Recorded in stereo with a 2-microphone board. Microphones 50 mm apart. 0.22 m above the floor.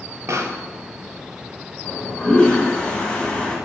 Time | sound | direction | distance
0.3 | a pop | 75° right (ahead or behind) | 0.8 m
1.8 | a toilet flushing | 20° left (ahead or behind) | 1.3 m